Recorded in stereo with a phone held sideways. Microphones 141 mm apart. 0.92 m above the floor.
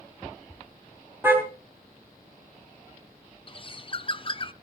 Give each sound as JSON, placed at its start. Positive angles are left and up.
{"t": 1.2, "sound": "a car horn", "side_deg": -15, "distance_m": 3.5}
{"t": 3.5, "sound": "a bird", "side_deg": 35, "distance_m": 0.6}